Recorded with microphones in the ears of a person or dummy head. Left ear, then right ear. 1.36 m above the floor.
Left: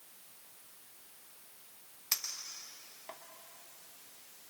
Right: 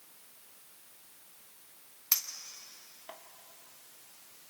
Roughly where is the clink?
Centre.